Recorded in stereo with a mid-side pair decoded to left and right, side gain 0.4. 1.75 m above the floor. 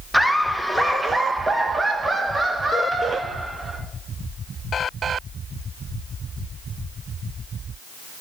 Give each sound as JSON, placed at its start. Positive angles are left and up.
{"t": 0.1, "sound": "laughter", "azimuth_deg": 0, "distance_m": 1.6}